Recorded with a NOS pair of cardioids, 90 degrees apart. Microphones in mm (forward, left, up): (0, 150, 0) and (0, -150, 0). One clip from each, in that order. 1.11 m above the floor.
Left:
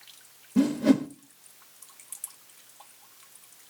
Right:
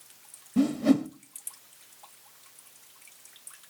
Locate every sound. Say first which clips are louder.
0.6 s a whoosh: left 1 dB; 15° left, 0.9 m